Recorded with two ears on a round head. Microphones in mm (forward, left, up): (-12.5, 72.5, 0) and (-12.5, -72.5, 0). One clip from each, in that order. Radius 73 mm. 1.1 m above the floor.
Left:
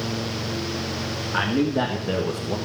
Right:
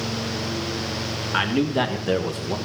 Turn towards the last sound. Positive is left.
turn(degrees=-35)  # may be behind; listen again after turning